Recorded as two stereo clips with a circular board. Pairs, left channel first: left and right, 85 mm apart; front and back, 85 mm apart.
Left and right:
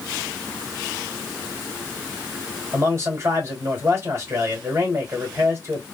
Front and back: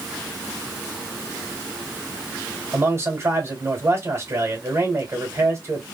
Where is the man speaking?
135° right, 2 m.